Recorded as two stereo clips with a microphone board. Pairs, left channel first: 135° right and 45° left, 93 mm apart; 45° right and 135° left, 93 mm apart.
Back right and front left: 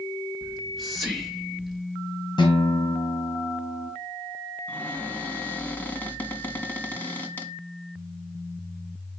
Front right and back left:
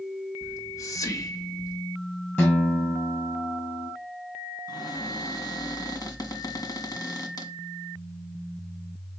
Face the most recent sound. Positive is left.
turn(degrees=-70)